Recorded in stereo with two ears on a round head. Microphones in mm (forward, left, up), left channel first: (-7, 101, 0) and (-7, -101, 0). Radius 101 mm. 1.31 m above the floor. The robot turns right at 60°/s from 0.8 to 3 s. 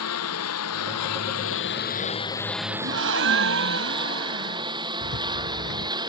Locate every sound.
0.0 s a lawn mower: 75° left (ahead or behind); by 6.1 s 20° right (ahead or behind)
2.8 s a gasp: 50° right (ahead or behind); by 4.7 s 60° right (ahead or behind)
5.0 s a rattle: 70° left (ahead or behind)